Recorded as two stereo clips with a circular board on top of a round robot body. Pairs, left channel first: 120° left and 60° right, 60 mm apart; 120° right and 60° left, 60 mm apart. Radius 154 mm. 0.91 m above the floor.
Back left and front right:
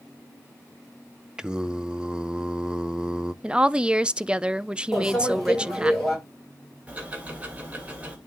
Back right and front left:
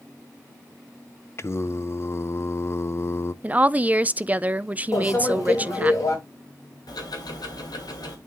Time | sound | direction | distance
1.4 | singing | 130° right | 0.7 m
3.4 | a woman speaking | 5° left | 0.6 m
4.9 | a microwave | 155° right | 4 m
6.9 | ticking | 130° right | 2.5 m